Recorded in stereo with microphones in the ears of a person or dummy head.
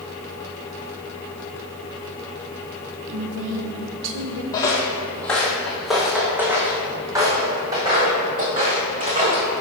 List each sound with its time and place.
3.1 s a woman speaking: 65° right (ahead or behind), 1.2 m
4.5 s footsteps: 20° left (ahead or behind), 1.6 m; by 9.5 s 30° right (ahead or behind), 3 m